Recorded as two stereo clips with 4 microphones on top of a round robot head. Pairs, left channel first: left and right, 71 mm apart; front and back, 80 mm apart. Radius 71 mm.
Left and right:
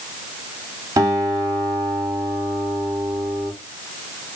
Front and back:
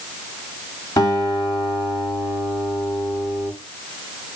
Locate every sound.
1.0 s a guitar: 55° right, 2 m